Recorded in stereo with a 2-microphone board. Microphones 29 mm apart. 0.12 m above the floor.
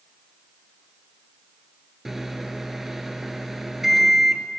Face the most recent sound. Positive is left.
turn(degrees=-10)  # may be behind; listen again after turning